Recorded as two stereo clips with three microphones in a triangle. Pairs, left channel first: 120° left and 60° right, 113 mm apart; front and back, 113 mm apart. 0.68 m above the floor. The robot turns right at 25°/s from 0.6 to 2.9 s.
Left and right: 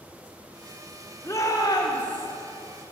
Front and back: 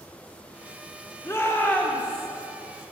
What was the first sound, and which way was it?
A shout, 60° left.